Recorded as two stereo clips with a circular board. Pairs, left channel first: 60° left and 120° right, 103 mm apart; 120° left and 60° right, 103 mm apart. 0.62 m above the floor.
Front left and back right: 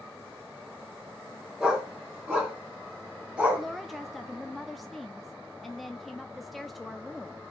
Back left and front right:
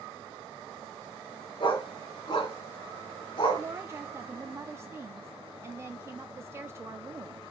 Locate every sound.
1.6 s a dog barking: 160° left, 3 m
3.6 s a woman speaking: 30° right, 0.7 m